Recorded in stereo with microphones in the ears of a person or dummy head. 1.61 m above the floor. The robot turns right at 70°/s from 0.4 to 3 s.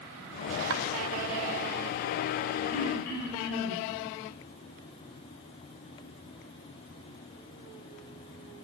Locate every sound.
0.7 s chopping: 80° right, 1.8 m
2.7 s throat clearing: 70° left (ahead or behind), 4 m; by 3.8 s 55° left (ahead or behind), 4 m